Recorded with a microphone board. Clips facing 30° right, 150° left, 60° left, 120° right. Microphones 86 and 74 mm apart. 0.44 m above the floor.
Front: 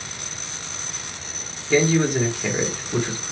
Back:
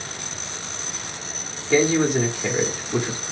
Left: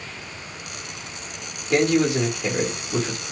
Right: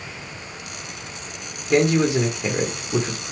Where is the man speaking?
130° right, 1.0 m.